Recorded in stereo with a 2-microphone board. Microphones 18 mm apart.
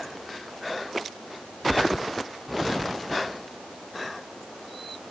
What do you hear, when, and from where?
Only background noise.